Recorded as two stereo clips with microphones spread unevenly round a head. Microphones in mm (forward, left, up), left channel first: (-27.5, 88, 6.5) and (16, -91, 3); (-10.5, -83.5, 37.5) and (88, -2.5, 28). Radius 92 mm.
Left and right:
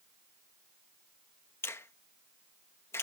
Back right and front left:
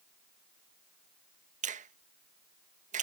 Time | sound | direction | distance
1.6 | a finger snap | 25° left | ?